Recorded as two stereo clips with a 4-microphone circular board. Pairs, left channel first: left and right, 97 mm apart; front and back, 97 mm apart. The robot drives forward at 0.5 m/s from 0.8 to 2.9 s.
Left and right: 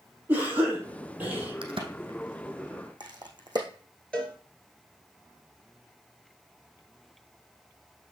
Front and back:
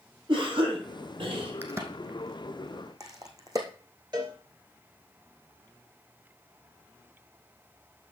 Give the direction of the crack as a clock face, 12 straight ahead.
4 o'clock.